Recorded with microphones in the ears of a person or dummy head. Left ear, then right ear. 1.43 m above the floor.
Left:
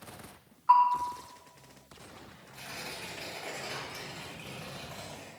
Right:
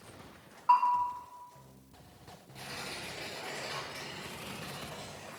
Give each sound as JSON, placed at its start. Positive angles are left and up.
{"t": 0.7, "sound": "a bell", "side_deg": 5, "distance_m": 1.2}
{"t": 2.5, "sound": "tearing paper", "side_deg": 35, "distance_m": 4.5}